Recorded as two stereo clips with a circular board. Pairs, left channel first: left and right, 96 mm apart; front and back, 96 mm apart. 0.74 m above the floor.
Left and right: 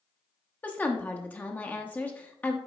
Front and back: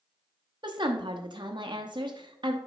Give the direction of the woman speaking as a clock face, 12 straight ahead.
7 o'clock.